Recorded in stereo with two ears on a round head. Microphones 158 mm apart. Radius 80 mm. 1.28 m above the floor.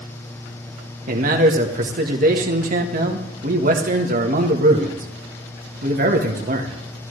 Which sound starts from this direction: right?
A man speaking, at 1.1 s.